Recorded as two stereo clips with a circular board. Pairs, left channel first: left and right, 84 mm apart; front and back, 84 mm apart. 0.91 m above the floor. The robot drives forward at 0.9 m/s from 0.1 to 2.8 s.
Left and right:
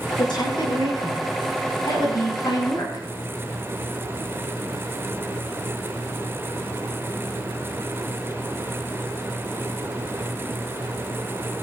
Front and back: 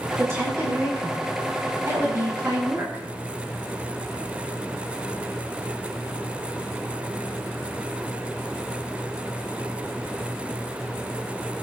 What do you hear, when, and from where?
0.2 s a woman speaking: 120° left, 8.5 m; by 3.0 s 130° left, 9.5 m